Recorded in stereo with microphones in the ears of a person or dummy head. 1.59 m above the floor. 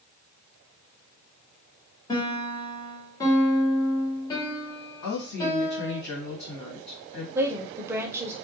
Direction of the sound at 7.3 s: 15° right (ahead or behind).